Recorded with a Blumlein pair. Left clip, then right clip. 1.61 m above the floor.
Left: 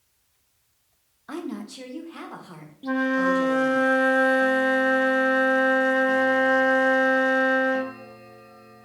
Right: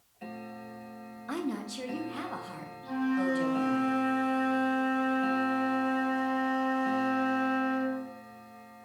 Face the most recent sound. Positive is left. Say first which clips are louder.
# left 8 dB
turn(degrees=35)